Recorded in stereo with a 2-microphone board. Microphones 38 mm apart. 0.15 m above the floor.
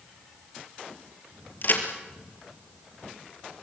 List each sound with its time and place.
1.6 s a crack: 55° left (ahead or behind), 2.5 m